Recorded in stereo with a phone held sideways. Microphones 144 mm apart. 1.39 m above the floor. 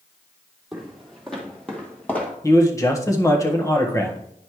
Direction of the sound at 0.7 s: Centre (ahead or behind).